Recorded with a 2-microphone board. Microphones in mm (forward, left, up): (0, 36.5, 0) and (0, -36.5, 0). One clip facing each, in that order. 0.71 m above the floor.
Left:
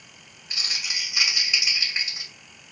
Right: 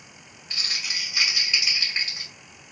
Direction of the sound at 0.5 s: 10° left (ahead or behind).